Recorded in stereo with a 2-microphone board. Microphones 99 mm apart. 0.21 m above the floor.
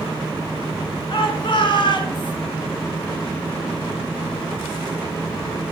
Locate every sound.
1.1 s a shout: 60° left (ahead or behind), 3 m; by 2.4 s 50° left (ahead or behind), 2 m